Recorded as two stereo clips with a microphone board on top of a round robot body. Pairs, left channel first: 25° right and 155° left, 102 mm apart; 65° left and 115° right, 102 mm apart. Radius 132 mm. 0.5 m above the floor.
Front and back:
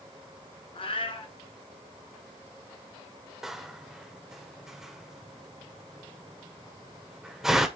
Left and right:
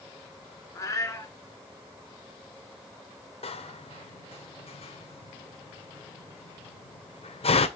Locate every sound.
0.8 s a cat meowing: 5° left, 1.7 m
3.4 s a door slam: 70° left, 1.4 m